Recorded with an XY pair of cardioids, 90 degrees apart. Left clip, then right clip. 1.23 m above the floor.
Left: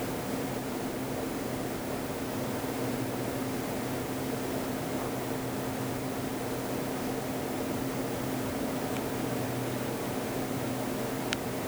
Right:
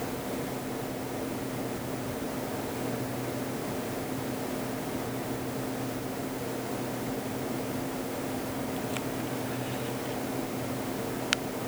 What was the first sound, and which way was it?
Only background noise.